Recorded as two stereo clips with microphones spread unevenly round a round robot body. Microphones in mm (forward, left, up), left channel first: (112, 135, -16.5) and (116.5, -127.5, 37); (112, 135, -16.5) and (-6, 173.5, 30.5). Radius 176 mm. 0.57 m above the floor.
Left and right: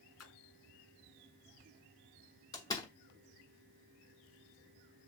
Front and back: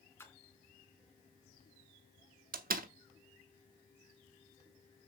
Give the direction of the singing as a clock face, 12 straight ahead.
No singing in this recording.